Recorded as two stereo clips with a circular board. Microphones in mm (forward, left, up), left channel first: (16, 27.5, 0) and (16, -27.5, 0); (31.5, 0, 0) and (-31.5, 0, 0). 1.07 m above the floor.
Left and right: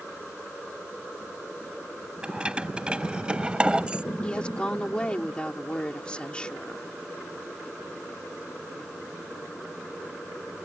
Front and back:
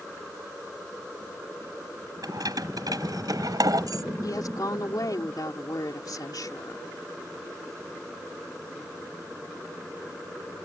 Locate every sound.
2.2 s keys jangling: 160° right
4.2 s a woman speaking: 20° left